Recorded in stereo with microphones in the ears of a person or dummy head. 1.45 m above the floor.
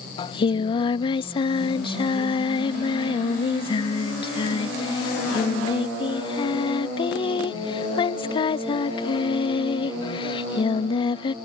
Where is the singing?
25° left (ahead or behind).